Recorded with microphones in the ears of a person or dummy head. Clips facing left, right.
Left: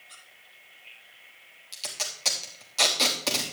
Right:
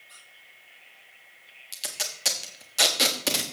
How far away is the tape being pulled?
About 1.1 m.